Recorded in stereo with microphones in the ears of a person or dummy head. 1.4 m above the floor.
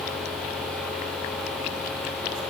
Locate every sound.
Only background noise.